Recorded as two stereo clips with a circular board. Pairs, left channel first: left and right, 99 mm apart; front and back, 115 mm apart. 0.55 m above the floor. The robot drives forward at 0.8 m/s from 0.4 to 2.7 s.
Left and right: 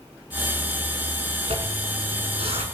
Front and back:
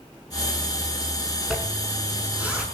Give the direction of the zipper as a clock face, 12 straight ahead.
3 o'clock.